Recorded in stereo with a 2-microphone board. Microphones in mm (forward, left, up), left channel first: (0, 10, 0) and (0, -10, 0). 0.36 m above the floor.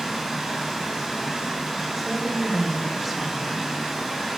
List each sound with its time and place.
0.0 s running water: 10° right (ahead or behind), 3 m
2.0 s a woman speaking: 5° right (ahead or behind), 1.5 m